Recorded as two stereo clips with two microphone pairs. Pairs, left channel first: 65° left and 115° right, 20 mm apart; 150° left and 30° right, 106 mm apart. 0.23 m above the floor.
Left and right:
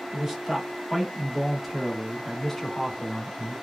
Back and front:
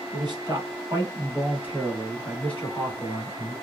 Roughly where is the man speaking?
Ahead right.